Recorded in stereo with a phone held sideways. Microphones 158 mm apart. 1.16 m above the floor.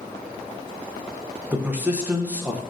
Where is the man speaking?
10° right (ahead or behind), 0.6 m.